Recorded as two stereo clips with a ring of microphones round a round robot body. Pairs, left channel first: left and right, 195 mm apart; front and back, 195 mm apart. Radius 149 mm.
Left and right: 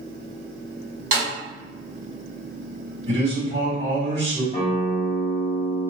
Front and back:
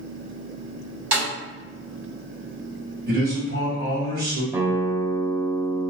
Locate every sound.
1.1 s a snare drum: 135° right, 1.7 m
3.1 s a man speaking: 150° right, 1.7 m
4.5 s a guitar: 110° left, 0.9 m